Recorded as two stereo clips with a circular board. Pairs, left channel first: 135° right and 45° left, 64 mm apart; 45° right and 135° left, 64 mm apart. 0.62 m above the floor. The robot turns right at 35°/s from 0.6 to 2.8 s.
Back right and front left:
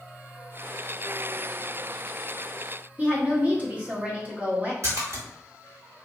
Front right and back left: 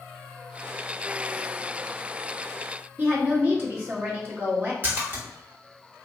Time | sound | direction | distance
3.0 | a woman speaking | 100° left | 1.1 m
4.8 | a splash | 80° left | 1.5 m